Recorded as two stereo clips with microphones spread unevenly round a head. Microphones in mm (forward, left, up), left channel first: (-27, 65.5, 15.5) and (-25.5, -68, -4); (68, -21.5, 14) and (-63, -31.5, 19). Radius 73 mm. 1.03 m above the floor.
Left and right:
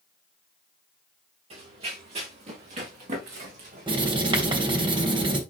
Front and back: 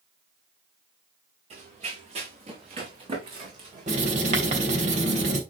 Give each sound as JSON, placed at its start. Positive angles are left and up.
{"t": 1.5, "sound": "running footsteps", "azimuth_deg": -135, "distance_m": 5.5}
{"t": 3.9, "sound": "writing", "azimuth_deg": -145, "distance_m": 3.5}